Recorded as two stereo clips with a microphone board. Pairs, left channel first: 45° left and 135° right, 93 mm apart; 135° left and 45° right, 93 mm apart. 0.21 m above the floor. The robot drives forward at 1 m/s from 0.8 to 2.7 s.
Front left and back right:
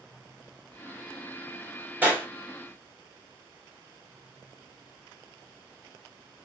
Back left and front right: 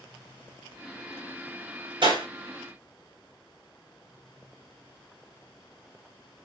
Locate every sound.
2.0 s a clap: 65° right, 2.5 m; by 2.3 s 75° right, 2.5 m